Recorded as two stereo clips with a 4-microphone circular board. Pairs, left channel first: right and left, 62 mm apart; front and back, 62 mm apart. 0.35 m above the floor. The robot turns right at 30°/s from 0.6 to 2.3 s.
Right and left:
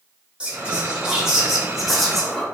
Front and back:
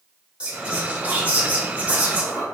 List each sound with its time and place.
0.4 s whispering: 140° left, 1.0 m; by 2.5 s 170° right, 1.0 m